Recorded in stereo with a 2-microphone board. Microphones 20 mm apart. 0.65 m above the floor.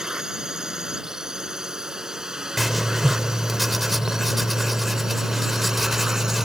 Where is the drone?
35° right (ahead or behind); by 6.5 s 30° right (ahead or behind).